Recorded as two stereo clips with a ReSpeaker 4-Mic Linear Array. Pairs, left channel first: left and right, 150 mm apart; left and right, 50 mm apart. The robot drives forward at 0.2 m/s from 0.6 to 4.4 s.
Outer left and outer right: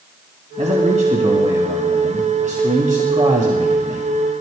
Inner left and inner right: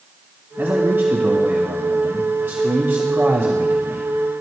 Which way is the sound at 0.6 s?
55° right (ahead or behind).